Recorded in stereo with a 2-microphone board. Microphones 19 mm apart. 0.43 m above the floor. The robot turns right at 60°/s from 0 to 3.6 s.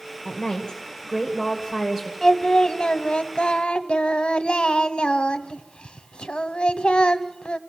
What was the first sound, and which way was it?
A woman speaking, 90° left.